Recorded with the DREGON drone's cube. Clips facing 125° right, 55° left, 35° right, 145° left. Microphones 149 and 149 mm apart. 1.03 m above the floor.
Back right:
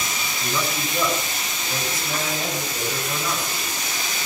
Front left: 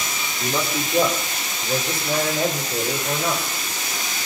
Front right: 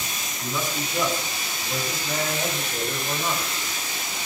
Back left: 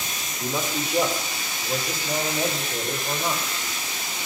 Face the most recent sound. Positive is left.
turn(degrees=70)